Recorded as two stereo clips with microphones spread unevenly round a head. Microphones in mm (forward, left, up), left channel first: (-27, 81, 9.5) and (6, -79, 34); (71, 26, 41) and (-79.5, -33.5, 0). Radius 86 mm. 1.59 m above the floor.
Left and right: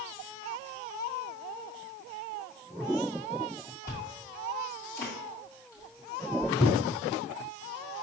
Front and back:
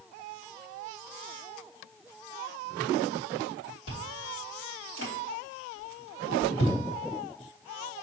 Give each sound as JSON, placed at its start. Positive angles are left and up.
{"t": 3.9, "sound": "chewing", "azimuth_deg": 25, "distance_m": 1.8}